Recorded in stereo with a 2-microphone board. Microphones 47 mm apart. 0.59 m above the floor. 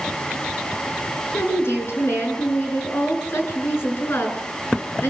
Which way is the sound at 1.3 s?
60° left (ahead or behind).